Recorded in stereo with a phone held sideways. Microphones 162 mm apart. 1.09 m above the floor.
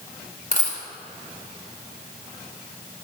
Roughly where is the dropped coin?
Left.